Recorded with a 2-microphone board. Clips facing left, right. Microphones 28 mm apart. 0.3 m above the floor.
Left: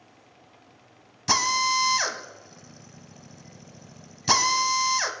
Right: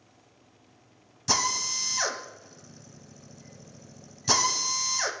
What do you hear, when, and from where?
1.3 s a drill: 25° left (ahead or behind), 0.7 m